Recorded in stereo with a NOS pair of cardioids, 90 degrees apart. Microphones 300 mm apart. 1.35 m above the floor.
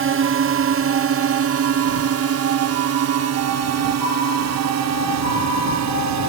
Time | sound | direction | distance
0.0 | a drone | 45° right | ?